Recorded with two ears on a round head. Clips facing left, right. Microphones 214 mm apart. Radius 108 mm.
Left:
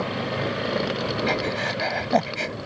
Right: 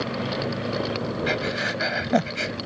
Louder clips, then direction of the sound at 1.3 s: Left 1 dB; 15° right (ahead or behind).